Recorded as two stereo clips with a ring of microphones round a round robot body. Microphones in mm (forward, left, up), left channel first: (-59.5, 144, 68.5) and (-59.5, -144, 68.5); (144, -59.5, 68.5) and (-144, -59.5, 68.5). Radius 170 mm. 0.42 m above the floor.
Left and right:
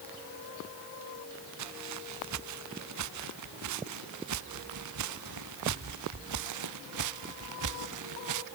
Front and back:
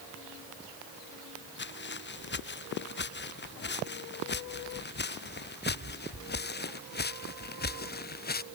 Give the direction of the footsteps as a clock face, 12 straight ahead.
2 o'clock.